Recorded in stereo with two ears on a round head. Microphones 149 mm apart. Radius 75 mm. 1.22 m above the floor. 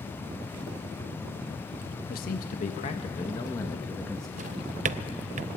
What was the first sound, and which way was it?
A man speaking, 60° left (ahead or behind).